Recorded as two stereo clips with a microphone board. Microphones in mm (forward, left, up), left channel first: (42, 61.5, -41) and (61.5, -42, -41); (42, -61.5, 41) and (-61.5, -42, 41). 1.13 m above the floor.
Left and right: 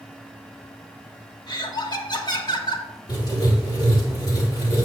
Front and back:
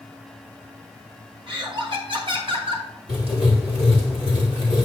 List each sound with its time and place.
1.5 s laughter: 140° left, 1.6 m
3.1 s writing: 150° left, 2.5 m